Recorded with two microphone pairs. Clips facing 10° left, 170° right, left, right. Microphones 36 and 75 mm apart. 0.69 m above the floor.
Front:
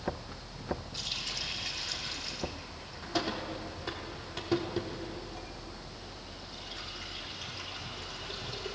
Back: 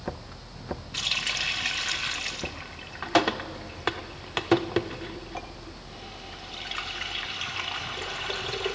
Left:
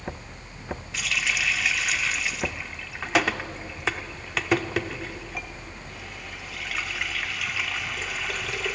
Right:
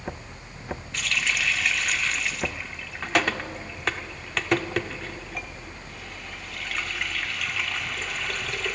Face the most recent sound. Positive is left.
turn(degrees=175)